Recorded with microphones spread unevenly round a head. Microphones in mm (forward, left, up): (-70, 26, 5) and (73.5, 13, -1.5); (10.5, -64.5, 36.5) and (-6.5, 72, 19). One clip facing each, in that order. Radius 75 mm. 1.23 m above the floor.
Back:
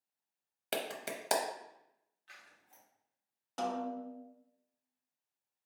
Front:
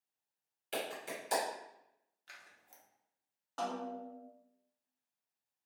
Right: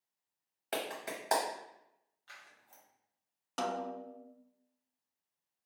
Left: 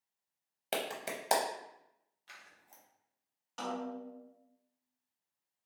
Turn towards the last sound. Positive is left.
turn(degrees=-115)